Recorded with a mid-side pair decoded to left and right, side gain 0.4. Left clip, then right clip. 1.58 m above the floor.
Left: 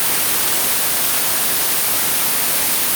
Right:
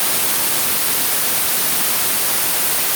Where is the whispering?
I don't hear whispering.